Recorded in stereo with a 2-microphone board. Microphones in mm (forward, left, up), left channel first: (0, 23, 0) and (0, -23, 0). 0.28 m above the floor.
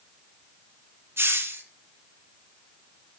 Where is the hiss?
70° right (ahead or behind), 1.8 m.